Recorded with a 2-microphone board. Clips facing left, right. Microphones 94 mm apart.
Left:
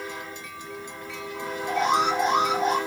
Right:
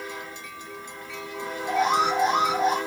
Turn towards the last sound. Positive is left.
turn(degrees=-5)  # may be behind; listen again after turning